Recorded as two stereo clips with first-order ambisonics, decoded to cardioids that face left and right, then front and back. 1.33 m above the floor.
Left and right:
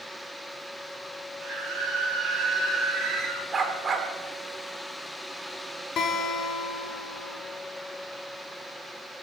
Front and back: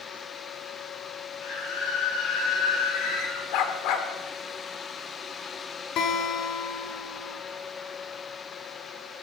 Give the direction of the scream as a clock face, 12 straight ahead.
1 o'clock.